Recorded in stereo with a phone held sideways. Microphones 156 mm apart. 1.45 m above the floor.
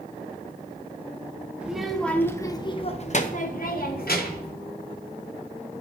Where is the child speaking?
5° right (ahead or behind), 0.9 m; by 4.5 s 75° left (ahead or behind), 1.1 m.